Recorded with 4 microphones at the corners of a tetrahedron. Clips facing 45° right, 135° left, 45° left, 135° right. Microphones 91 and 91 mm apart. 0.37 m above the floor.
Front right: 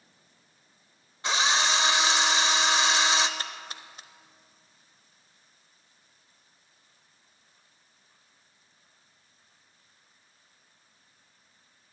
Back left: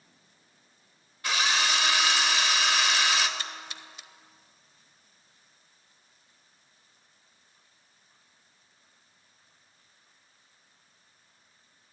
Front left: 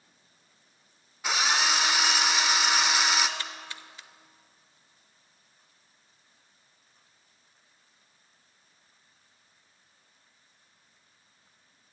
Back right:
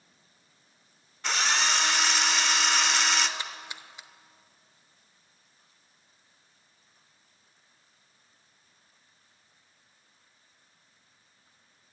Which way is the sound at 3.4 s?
70° right.